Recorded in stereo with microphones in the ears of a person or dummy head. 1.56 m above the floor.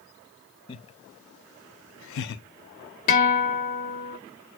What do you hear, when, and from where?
0.7 s laughter: 30° left (ahead or behind), 0.9 m; by 2.4 s 50° left (ahead or behind), 0.8 m
3.1 s a guitar: 40° left (ahead or behind), 1.5 m